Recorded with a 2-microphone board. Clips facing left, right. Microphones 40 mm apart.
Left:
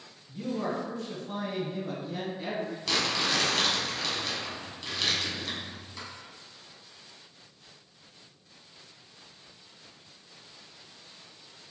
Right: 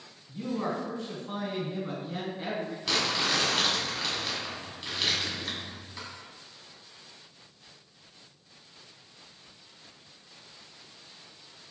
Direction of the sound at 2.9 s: 10° right (ahead or behind).